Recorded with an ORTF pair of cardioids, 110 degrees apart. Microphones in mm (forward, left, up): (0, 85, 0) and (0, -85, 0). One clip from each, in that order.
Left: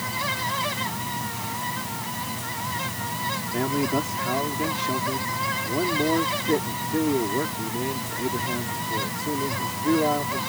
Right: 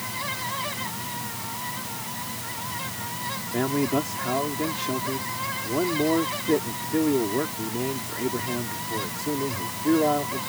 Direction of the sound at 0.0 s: 25° left.